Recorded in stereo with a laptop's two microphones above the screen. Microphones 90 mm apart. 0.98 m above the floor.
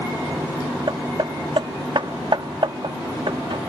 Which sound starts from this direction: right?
Hammering, at 0.9 s.